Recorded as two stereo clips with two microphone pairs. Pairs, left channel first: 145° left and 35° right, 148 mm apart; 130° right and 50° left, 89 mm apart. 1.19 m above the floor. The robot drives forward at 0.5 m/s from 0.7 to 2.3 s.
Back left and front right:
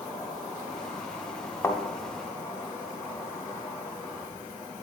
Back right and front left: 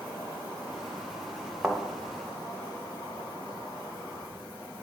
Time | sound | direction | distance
0.0 | an insect | 125° right | 2.5 m
1.6 | a thud | 125° left | 1.0 m